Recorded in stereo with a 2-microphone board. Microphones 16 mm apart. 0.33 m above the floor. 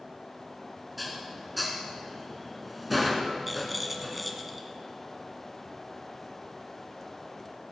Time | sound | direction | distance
1.0 | dishes clattering | 5° right (ahead or behind) | 2.5 m
3.5 | a rattle | centre (ahead or behind) | 1.9 m